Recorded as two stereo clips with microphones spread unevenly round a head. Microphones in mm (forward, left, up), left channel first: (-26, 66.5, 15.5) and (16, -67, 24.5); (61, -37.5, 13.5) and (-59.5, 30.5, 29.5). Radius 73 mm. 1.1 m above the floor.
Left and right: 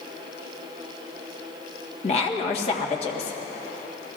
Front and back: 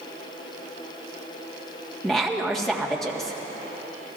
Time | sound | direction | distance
2.0 | a woman speaking | 60° left | 1.7 m